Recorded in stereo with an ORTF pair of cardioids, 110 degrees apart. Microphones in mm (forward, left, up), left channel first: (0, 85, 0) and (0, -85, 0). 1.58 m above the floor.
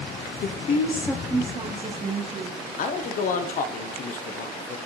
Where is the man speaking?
50° left, 1.2 m.